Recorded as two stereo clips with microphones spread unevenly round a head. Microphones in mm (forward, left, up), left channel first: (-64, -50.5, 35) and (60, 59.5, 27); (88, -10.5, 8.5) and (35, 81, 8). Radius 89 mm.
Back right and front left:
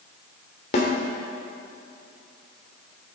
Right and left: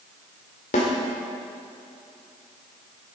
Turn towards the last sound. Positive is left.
turn(degrees=-90)